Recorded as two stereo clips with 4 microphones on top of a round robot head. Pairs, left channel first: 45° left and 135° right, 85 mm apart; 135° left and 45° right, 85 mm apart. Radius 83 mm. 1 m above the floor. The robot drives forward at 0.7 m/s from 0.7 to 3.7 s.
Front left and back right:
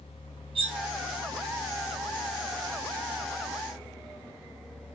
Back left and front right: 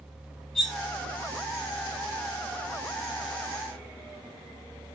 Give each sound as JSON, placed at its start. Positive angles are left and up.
{"t": 0.6, "sound": "cutlery clinking", "azimuth_deg": -140, "distance_m": 1.8}